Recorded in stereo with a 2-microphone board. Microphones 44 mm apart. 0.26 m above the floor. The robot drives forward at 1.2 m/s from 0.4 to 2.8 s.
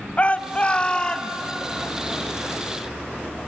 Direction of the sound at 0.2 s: 35° left (ahead or behind).